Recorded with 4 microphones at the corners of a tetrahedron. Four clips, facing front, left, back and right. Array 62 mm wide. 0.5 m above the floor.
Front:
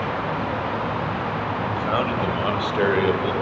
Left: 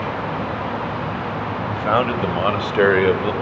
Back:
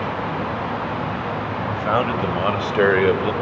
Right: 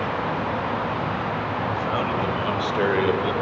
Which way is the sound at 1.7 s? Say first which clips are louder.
Left 8 dB, back 4 dB; 115° left.